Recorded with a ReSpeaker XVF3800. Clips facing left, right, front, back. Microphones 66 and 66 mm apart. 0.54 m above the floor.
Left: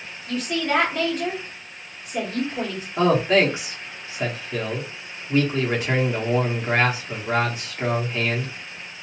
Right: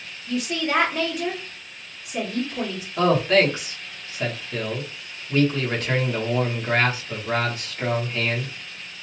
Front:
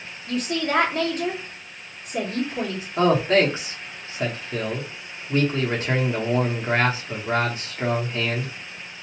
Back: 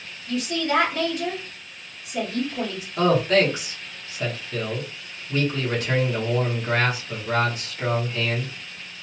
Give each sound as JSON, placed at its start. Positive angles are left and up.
{"t": 0.3, "sound": "a woman speaking", "azimuth_deg": -10, "distance_m": 1.6}
{"t": 3.0, "sound": "a man speaking", "azimuth_deg": 25, "distance_m": 1.0}